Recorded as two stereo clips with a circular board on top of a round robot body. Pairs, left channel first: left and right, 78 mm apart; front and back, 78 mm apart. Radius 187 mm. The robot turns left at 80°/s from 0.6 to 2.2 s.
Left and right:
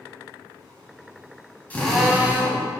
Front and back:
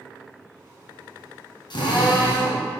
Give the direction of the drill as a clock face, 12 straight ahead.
11 o'clock.